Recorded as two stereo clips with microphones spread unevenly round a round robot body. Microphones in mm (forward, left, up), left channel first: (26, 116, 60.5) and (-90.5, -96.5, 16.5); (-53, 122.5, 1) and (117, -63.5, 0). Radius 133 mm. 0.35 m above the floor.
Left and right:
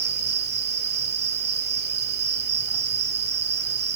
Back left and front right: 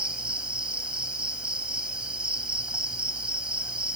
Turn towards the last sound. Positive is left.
turn(degrees=-135)